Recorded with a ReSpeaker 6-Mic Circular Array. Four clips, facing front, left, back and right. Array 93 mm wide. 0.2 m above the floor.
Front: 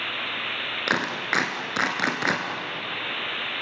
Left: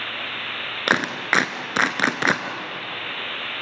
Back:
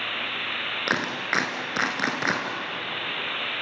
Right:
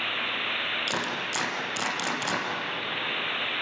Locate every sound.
0.9 s a clap: 85° left, 2.0 m